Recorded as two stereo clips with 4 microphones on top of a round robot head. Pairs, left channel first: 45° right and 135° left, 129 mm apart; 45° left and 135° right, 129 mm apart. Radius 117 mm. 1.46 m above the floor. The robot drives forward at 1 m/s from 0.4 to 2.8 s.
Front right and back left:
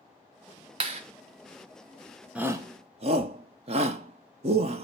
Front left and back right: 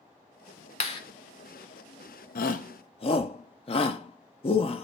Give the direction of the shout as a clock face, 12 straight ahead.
10 o'clock.